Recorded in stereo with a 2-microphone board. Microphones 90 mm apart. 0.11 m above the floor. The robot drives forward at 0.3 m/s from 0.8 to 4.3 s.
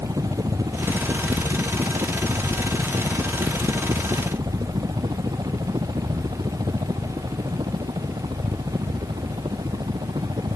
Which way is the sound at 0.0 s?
45° right (ahead or behind).